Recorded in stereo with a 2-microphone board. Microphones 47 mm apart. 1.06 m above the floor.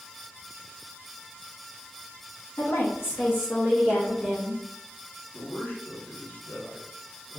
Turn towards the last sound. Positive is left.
turn(degrees=40)  # may be behind; listen again after turning